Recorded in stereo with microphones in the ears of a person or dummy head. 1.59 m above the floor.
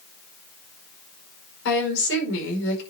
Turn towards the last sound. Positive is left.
turn(degrees=75)  # may be behind; listen again after turning